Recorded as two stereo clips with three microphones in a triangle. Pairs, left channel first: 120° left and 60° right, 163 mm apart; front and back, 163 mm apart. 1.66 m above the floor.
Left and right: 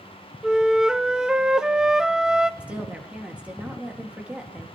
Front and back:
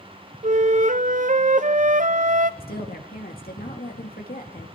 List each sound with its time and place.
0.4 s a flute: 145° right, 0.5 m
2.6 s a woman speaking: 20° left, 2.0 m